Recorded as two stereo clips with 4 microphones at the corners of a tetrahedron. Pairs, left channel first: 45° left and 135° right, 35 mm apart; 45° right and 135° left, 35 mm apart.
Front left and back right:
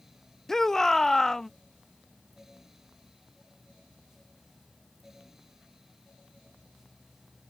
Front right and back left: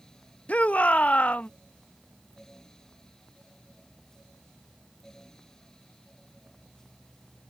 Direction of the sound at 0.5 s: 25° right.